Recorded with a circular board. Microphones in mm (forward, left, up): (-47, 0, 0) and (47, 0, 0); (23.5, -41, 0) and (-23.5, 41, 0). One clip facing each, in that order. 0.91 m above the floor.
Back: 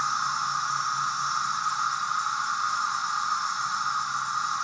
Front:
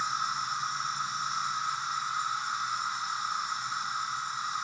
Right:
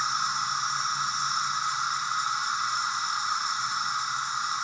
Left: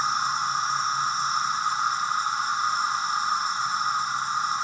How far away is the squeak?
No squeak in this recording.